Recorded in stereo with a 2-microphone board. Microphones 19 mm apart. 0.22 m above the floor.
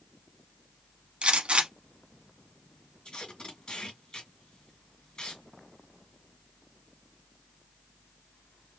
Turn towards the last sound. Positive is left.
turn(degrees=45)  # may be behind; listen again after turning